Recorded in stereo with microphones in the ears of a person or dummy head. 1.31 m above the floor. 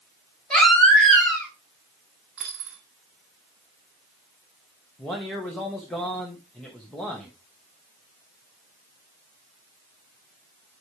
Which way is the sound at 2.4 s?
10° right (ahead or behind).